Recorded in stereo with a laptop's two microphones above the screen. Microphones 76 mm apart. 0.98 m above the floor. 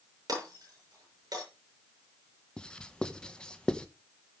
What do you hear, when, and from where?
0.3 s breaking glass: 50° right (ahead or behind), 6.5 m
2.6 s writing: 10° left (ahead or behind), 0.9 m